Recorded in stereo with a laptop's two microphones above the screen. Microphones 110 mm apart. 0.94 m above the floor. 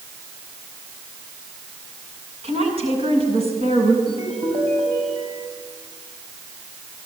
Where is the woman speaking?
65° right (ahead or behind), 7 m.